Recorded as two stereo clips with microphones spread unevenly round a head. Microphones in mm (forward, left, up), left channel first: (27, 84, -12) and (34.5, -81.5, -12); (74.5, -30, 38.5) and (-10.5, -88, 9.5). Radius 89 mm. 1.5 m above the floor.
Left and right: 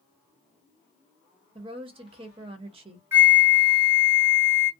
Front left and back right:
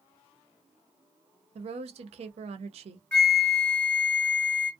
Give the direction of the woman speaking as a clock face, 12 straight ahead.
5 o'clock.